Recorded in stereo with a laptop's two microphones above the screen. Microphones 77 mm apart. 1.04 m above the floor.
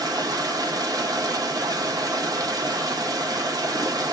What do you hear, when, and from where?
0.0 s running water: 50° right (ahead or behind), 0.7 m